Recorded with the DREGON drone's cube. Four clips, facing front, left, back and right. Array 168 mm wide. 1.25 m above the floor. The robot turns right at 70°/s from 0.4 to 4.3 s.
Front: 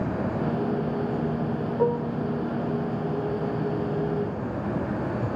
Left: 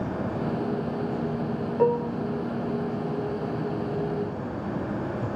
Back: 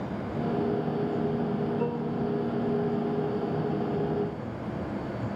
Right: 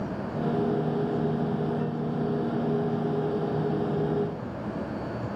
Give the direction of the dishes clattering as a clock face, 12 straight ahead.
10 o'clock.